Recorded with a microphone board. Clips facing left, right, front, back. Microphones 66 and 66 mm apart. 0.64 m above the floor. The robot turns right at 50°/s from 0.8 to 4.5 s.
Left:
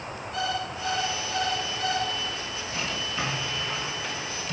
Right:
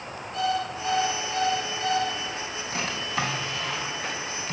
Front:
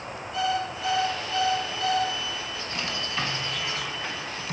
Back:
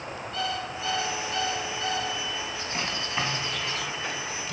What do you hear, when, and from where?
0.3 s an alarm clock: 75° left, 5 m; by 2.1 s 145° left, 5 m
2.7 s a drawer: 125° right, 3.5 m; by 4.5 s 40° right, 3.5 m